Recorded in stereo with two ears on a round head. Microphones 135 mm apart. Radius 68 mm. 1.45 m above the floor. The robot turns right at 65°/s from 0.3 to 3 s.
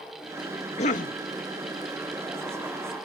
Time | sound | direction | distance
0.8 | a cough | 45° left (ahead or behind) | ?